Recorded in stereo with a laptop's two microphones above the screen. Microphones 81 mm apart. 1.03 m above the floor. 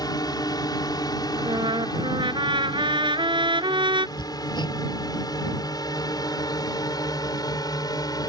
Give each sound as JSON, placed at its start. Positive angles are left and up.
{"t": 0.0, "sound": "a drone", "side_deg": 55}
{"t": 1.4, "sound": "a trumpet", "side_deg": -85}
{"t": 4.2, "sound": "hammering", "side_deg": 65}